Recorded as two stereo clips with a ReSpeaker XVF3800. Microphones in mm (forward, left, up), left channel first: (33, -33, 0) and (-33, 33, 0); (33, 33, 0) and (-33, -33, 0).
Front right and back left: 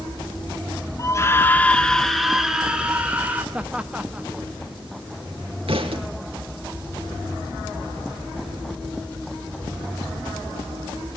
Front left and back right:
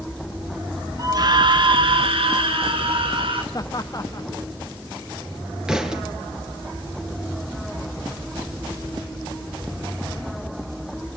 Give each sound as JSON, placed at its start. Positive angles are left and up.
{"t": 1.0, "sound": "a scream", "azimuth_deg": -90, "distance_m": 1.1}
{"t": 3.5, "sound": "laughter", "azimuth_deg": 65, "distance_m": 0.6}
{"t": 5.7, "sound": "a thud", "azimuth_deg": 145, "distance_m": 3.0}